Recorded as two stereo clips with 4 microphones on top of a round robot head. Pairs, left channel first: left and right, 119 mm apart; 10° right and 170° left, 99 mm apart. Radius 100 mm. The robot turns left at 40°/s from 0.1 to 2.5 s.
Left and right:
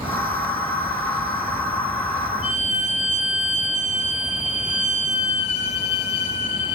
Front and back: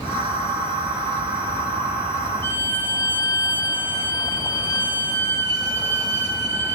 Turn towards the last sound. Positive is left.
turn(degrees=50)